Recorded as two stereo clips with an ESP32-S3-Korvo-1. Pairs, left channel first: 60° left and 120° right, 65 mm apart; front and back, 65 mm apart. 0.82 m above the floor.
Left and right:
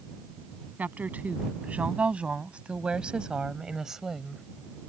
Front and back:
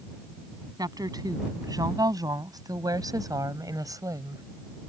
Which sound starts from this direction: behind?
A woman speaking, at 0.8 s.